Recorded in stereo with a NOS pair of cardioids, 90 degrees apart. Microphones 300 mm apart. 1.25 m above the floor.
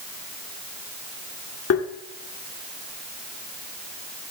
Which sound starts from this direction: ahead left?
Tapping, at 1.7 s.